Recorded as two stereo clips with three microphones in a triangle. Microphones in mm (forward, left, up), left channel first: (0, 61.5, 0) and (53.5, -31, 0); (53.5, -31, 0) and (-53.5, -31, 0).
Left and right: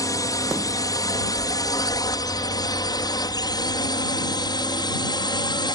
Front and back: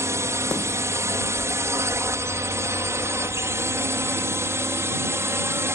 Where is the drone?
140° left; by 5.8 s 125° left.